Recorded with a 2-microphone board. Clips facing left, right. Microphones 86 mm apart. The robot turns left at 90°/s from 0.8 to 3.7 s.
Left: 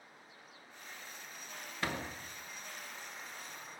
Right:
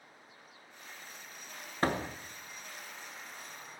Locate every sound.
1.8 s a door slam: 40° right, 1.1 m; by 2.2 s 70° right, 1.1 m